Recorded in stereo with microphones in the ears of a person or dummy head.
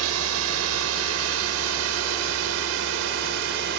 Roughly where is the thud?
I don't hear a thud.